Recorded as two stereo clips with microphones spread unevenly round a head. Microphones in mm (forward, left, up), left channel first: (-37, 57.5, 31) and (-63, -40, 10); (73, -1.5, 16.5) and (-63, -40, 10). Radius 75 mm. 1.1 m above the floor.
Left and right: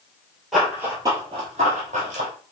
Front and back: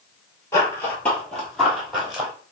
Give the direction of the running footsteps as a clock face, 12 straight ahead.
11 o'clock.